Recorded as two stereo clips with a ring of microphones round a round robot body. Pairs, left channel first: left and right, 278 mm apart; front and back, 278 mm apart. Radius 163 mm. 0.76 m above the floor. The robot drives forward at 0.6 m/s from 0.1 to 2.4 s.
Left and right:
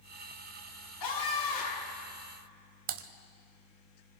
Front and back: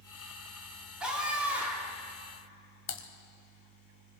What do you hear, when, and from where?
1.0 s a scream: 95° left, 8.5 m
2.9 s typing on a keyboard: 50° right, 0.9 m